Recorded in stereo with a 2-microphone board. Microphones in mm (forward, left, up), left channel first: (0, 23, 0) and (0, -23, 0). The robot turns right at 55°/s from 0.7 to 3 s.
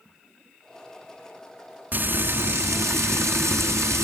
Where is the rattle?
I don't hear a rattle.